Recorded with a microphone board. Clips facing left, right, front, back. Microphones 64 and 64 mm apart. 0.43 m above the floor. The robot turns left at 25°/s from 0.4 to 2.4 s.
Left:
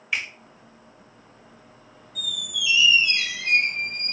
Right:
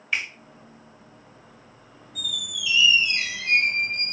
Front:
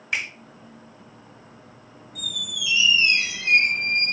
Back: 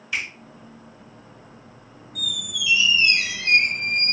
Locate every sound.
0.1 s a finger snap: 5° left, 1.5 m
2.1 s a squeak: 170° right, 1.1 m; by 4.1 s straight behind, 1.1 m